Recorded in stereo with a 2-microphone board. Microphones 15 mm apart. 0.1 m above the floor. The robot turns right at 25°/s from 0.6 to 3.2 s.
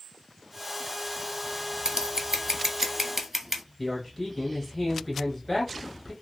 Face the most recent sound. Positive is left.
turn(degrees=10)  # may be behind; listen again after turning